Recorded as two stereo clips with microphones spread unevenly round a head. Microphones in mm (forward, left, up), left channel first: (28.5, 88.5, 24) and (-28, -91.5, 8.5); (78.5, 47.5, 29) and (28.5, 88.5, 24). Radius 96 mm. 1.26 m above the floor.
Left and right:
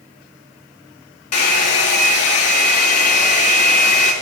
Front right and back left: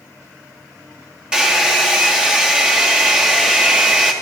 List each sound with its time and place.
1.3 s a hair dryer: 65° left, 2.5 m